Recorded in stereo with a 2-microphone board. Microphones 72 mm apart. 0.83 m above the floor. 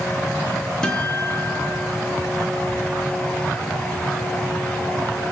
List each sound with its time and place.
0.8 s a guitar: 10° left (ahead or behind), 4 m